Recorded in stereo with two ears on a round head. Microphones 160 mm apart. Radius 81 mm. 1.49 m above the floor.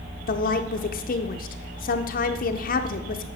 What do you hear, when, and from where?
0.3 s a woman speaking: 50° left (ahead or behind), 0.6 m